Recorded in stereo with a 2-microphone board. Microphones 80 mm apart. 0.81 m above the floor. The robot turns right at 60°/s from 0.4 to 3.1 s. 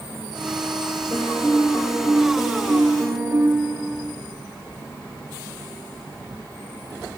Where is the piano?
90° left, 6.5 m; by 4.0 s 150° right, 6.5 m.